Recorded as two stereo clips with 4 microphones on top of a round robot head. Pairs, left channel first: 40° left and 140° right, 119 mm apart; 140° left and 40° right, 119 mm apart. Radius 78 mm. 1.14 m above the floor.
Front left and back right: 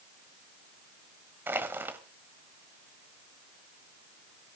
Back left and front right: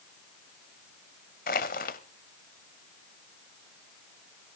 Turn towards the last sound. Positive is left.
turn(degrees=145)